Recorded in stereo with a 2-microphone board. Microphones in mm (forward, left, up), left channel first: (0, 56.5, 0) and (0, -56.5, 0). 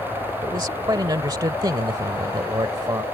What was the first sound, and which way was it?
A man speaking, 40° right (ahead or behind).